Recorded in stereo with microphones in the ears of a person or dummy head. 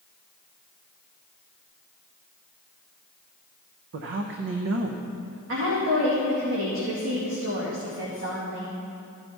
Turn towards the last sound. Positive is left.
turn(degrees=-85)